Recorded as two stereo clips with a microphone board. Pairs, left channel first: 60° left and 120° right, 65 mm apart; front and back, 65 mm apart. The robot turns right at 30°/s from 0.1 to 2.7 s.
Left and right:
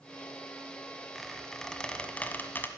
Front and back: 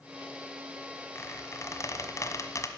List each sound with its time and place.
1.1 s a squeak: 30° right, 1.3 m; by 2.7 s 15° left, 1.3 m